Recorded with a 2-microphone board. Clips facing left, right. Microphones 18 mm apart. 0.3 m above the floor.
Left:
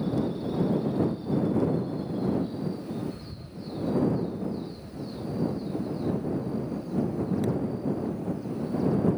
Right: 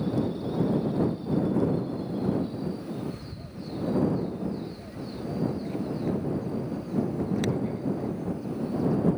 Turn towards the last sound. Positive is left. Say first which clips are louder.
# right 1 dB
turn(degrees=-55)  # may be behind; listen again after turning